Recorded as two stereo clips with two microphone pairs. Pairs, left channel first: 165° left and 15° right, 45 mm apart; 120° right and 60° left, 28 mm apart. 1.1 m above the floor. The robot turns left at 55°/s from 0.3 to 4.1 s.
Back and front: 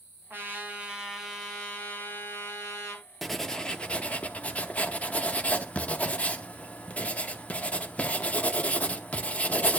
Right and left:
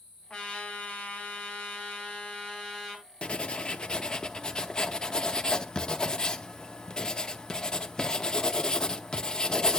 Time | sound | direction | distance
0.3 | a trumpet | 50° right | 3 m
3.2 | writing | 105° right | 0.7 m